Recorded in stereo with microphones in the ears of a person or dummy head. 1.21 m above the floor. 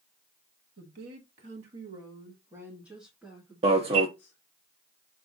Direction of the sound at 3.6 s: 30° right (ahead or behind).